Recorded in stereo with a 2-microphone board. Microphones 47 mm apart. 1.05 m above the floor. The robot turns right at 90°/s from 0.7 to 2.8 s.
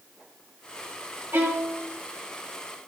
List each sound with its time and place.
1.3 s a violin: 105° right, 3 m; by 1.8 s 60° right, 3 m